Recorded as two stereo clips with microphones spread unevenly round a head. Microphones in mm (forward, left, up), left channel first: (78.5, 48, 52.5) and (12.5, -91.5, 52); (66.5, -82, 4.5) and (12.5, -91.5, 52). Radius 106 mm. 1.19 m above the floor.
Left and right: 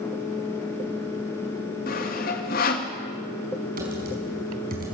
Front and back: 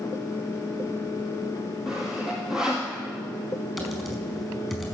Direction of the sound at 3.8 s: 90° right.